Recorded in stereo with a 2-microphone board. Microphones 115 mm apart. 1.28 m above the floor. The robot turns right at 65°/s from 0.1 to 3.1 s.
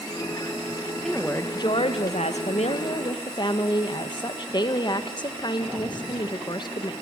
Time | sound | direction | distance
1.0 | a woman speaking | 5° left | 1.5 m